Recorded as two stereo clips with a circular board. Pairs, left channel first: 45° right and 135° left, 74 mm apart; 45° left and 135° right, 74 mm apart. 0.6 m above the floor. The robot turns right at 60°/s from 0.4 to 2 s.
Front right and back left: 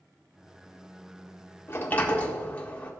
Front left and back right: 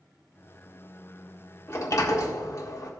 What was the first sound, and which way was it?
A sliding door, straight ahead.